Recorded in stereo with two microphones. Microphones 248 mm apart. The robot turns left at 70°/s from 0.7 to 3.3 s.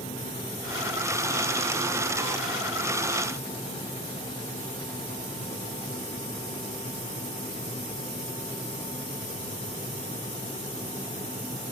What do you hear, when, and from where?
Only background noise.